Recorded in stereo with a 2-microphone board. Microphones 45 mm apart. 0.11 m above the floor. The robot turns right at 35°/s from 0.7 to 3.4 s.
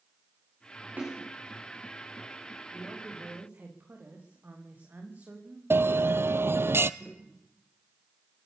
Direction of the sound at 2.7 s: 20° right (ahead or behind).